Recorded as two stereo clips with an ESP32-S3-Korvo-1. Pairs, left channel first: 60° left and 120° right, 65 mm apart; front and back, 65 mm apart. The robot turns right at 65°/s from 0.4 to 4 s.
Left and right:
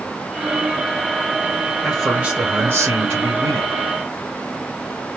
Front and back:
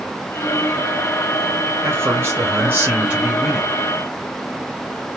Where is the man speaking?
160° left, 1.5 m; by 3.7 s 80° right, 1.5 m.